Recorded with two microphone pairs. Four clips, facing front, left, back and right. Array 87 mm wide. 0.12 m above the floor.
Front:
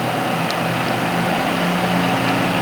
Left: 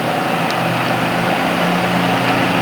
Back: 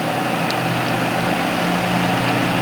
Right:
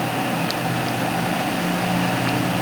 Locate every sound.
Only background noise.